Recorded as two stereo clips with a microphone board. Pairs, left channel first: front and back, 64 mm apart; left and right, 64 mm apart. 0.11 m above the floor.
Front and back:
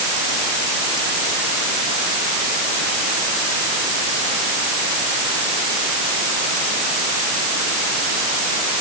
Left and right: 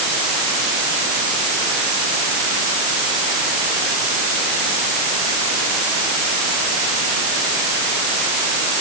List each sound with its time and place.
Only background noise.